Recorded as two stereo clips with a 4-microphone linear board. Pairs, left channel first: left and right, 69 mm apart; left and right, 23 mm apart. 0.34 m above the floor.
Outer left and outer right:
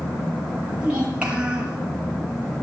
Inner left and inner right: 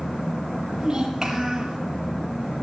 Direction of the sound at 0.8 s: 15° right (ahead or behind).